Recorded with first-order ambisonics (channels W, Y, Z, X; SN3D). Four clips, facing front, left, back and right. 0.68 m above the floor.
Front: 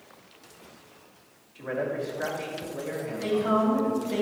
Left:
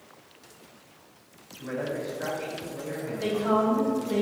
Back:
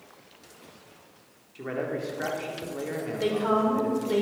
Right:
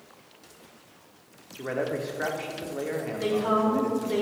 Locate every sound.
1.6 s a man speaking: 120° right, 1.8 m
3.2 s a woman speaking: 165° right, 2.5 m